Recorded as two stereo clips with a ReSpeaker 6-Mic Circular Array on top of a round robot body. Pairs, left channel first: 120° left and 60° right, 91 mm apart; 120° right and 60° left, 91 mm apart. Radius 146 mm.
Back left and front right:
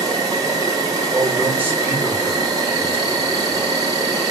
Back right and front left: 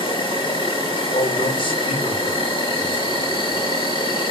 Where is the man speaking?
130° right, 2.5 m.